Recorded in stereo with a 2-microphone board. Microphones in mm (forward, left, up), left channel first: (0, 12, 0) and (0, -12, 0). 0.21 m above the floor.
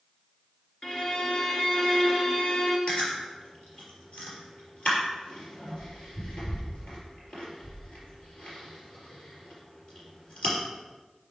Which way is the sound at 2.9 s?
50° left (ahead or behind).